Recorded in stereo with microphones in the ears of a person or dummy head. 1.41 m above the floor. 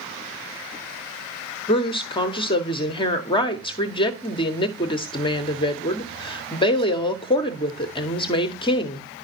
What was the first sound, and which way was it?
A woman speaking, 25° left (ahead or behind).